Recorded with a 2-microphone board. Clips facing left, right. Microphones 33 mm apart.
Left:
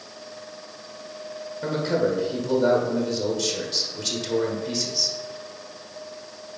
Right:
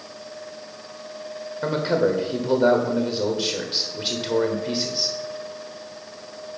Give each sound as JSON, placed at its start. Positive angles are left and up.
{"t": 1.6, "sound": "a man speaking", "side_deg": -25, "distance_m": 1.4}